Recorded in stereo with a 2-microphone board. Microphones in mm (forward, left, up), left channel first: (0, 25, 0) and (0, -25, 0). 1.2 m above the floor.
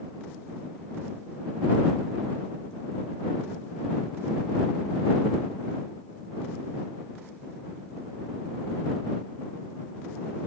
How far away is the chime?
No chime in this recording.